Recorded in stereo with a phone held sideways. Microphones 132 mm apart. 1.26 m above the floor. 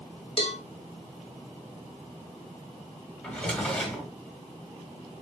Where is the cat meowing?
No cat meowing in this recording.